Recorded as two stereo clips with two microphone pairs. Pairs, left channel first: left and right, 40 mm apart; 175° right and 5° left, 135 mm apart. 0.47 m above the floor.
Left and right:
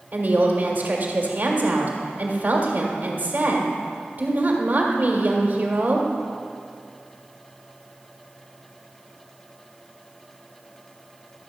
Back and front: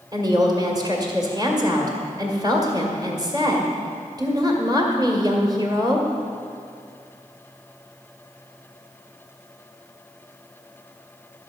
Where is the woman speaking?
50° right, 1.9 m.